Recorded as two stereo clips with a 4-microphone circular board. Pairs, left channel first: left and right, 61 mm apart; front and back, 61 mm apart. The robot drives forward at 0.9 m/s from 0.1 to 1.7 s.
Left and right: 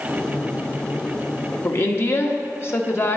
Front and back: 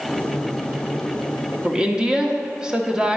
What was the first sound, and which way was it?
A woman speaking, 105° left.